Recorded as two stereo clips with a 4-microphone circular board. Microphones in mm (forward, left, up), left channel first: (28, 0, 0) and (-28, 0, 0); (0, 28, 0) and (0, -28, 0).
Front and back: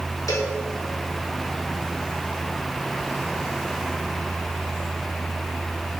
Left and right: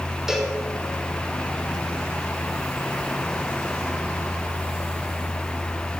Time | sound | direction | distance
0.3 | a cowbell | 10° right | 3 m